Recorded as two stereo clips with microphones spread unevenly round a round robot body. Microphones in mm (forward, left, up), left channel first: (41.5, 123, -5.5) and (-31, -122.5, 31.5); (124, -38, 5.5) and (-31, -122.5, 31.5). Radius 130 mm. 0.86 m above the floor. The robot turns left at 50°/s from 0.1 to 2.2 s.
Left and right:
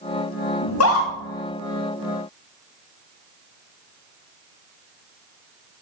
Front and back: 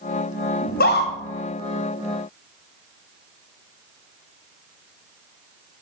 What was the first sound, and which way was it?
A scream, 65° left.